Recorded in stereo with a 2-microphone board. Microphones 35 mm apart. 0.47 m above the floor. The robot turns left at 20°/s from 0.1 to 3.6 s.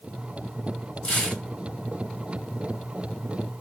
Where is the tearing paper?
30° left (ahead or behind), 2.5 m; by 1.4 s 40° left (ahead or behind), 2.5 m.